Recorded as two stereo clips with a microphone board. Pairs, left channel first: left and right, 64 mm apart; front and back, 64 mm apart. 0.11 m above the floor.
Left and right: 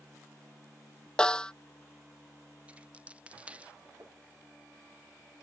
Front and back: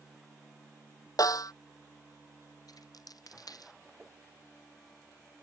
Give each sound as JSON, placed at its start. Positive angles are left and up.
{"t": 1.2, "sound": "a snare drum", "azimuth_deg": 15}
{"t": 2.7, "sound": "a dropped coin", "azimuth_deg": -20}
{"t": 4.0, "sound": "tapping", "azimuth_deg": -120}